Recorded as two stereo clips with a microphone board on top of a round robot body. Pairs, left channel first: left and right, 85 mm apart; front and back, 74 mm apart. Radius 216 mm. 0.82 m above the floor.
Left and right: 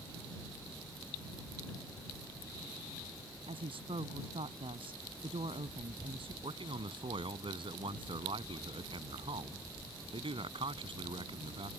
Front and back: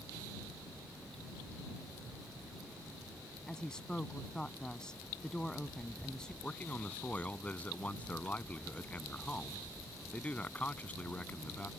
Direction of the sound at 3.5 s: 80° right.